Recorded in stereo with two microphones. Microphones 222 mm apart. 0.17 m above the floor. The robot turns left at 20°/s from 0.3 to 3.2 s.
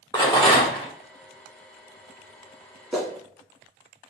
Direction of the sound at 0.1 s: 20° left (ahead or behind).